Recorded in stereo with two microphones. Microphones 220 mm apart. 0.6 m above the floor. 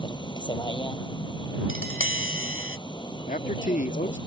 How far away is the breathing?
I don't hear breathing.